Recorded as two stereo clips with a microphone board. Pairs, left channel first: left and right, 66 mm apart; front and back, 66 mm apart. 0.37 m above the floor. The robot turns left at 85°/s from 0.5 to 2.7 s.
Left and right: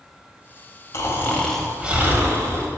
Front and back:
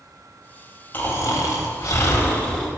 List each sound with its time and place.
0.9 s snoring: 55° left, 1.2 m; by 2.7 s 95° right, 1.2 m